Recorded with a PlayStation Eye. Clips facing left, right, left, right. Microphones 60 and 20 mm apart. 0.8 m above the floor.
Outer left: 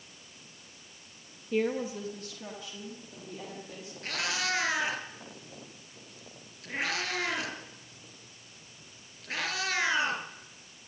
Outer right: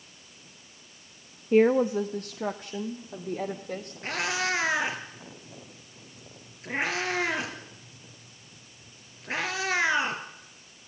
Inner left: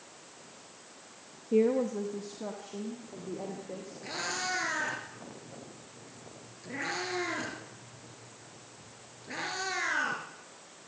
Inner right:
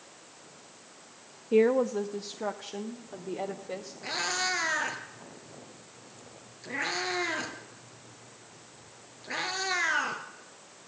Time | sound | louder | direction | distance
1.5 | a woman speaking | outer right 9 dB, inner right 3 dB | 40° right (ahead or behind) | 0.7 m
4.0 | a cat meowing | outer right 4 dB, inner right 4 dB | 25° right (ahead or behind) | 3.5 m